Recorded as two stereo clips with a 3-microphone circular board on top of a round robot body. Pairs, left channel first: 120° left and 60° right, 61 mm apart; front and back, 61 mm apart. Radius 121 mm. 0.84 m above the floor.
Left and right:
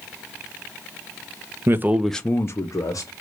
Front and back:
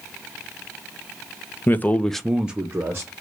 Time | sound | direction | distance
1.7 | a man speaking | 40° right | 0.6 m